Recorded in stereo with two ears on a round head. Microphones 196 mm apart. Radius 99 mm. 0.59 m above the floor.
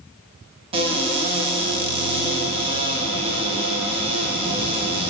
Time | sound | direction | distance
0.7 | a cupboard door | 25° right (ahead or behind) | 0.6 m